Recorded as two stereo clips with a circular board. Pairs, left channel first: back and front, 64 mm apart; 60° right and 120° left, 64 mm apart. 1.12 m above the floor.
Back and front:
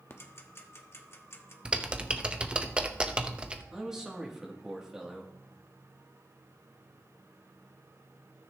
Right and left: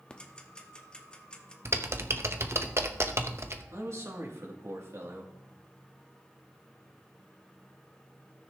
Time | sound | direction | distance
0.1 | ticking | 135° right | 1.0 m
1.6 | typing on a keyboard | 75° left | 0.8 m
3.7 | a man speaking | 80° left | 2.5 m